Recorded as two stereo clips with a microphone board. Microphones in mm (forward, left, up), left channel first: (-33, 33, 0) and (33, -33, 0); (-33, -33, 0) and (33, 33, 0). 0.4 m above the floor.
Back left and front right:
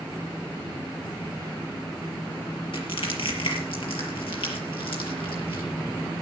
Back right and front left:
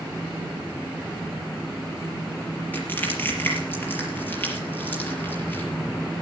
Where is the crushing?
155° left, 5.5 m.